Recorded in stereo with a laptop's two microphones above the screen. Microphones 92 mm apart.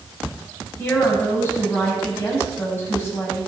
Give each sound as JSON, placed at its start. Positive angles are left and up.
{"t": 0.8, "sound": "a woman speaking", "side_deg": 25, "distance_m": 7.0}